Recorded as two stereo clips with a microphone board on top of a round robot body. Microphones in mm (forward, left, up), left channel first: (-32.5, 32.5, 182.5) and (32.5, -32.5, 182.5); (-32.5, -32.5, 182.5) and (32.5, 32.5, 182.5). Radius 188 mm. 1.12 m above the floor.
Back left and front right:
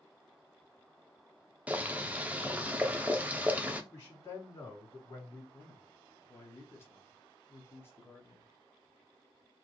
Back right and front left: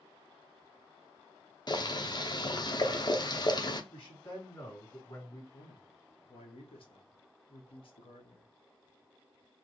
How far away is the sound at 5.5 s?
About 1.2 m.